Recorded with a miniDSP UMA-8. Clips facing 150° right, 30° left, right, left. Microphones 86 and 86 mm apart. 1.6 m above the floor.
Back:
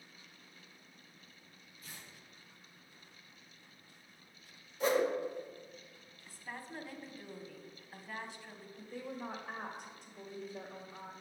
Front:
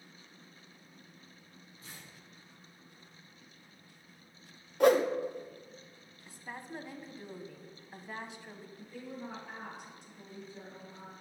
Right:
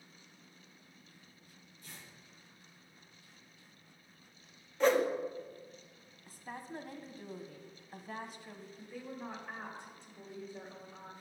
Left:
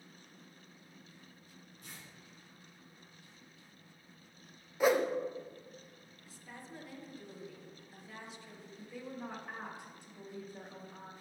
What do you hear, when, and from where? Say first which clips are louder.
1.8 s tearing paper: front 1 dB, even; 85° left, 3 m
4.8 s a whoosh: front 6 dB, right 1 dB; 10° left, 0.7 m
6.3 s a woman speaking: front 2 dB, right 6 dB; 40° right, 1.0 m
8.8 s a woman speaking: back 2 dB, left 1 dB; 165° left, 2.0 m